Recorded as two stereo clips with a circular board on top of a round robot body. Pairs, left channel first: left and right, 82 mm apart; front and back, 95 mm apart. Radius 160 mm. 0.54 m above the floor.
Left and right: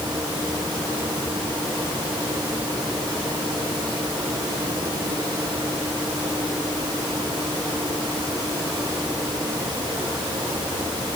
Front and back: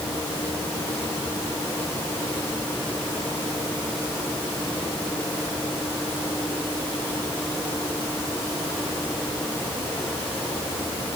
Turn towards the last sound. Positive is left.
No sound to turn to.